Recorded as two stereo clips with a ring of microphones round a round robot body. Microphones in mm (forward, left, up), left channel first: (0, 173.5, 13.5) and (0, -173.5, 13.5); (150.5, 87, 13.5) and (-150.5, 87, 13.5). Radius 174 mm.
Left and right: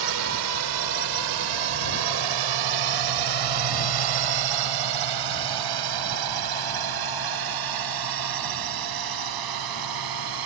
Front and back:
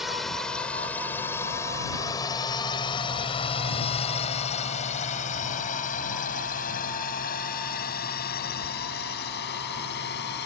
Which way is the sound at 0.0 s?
90° right.